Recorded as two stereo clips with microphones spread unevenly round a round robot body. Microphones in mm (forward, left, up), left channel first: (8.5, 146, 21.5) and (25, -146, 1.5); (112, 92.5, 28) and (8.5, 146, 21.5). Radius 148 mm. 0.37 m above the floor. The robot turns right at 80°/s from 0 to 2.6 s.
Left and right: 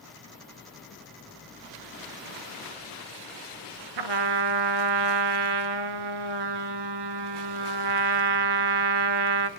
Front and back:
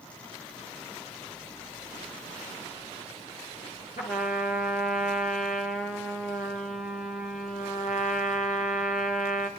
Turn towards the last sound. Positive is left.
turn(degrees=-85)